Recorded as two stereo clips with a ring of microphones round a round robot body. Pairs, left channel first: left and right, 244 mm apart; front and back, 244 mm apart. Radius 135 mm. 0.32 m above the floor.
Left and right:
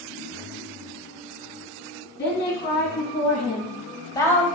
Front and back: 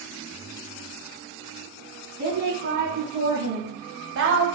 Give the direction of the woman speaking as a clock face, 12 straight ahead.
8 o'clock.